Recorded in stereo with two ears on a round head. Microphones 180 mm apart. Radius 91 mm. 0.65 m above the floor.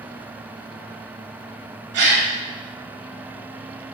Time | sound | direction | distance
1.9 | a gasp | 60° right (ahead or behind) | 1.4 m